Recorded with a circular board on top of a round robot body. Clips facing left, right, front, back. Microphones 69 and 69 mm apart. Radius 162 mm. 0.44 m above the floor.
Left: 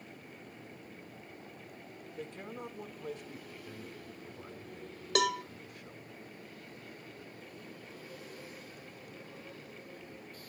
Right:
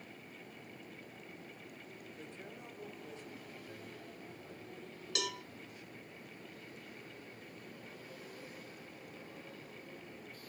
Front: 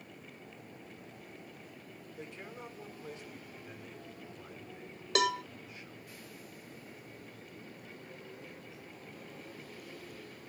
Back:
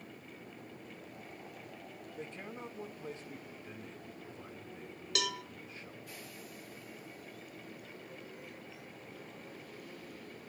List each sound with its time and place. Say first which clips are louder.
2.2 s a man speaking: left 10 dB, back 1 dB; 125° left, 6.5 m
5.2 s a cowbell: left 11 dB, front 8 dB; 55° left, 0.8 m